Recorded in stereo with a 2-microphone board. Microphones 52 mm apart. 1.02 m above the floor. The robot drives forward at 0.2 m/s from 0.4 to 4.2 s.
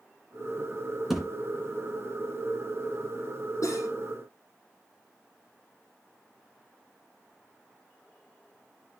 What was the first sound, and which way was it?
A thud, 5° right (ahead or behind).